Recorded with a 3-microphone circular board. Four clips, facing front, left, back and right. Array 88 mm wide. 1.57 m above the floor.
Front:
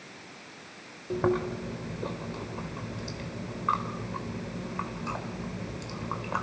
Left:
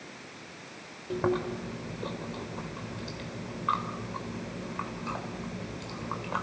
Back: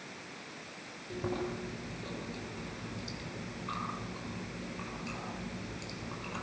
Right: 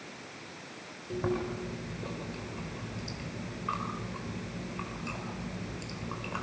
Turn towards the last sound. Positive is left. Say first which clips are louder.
# left 3 dB, front 9 dB
turn(degrees=30)